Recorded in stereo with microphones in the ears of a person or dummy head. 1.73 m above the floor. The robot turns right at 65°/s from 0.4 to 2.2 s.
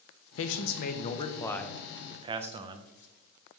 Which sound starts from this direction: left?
A man speaking, at 0.4 s.